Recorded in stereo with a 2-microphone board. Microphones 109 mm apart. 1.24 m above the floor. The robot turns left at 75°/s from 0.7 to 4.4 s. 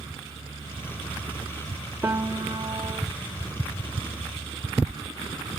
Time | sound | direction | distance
2.0 | a piano | 30° right | 0.9 m